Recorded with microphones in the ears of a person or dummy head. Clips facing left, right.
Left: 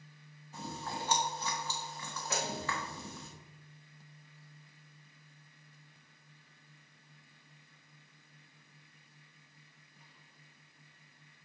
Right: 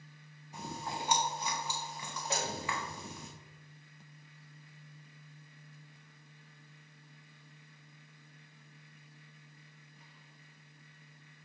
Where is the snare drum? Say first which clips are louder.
Even; 30° right (ahead or behind), 3 m.